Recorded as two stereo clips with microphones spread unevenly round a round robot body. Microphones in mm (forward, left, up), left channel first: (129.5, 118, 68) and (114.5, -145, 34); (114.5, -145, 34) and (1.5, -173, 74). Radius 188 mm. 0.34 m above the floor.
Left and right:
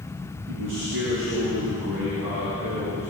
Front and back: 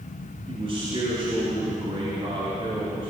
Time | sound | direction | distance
0.5 | a man speaking | 125° right | 6 m